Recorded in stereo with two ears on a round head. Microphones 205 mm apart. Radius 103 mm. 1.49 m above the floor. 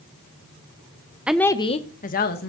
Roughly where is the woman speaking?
Centre.